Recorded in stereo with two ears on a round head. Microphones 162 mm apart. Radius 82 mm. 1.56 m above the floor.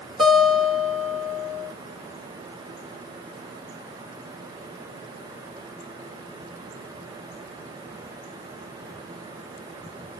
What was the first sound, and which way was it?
A guitar, centre (ahead or behind).